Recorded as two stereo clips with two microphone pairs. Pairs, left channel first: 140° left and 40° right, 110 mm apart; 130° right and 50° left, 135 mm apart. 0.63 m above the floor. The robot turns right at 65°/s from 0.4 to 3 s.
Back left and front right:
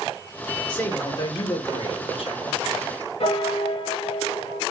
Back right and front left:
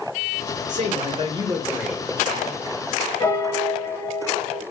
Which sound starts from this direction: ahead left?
A man speaking, at 0.7 s.